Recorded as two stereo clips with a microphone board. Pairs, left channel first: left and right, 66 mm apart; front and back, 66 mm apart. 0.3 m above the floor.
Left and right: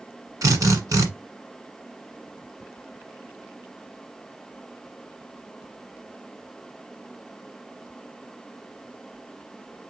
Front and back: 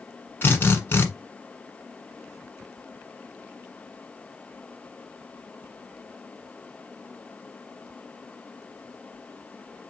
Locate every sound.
0.4 s a drill: 60° right, 1.3 m